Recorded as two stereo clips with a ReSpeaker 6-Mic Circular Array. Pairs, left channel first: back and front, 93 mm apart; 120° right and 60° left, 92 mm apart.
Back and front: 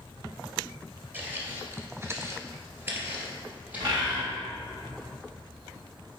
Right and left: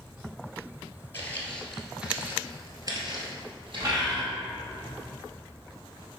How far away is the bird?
About 2.5 m.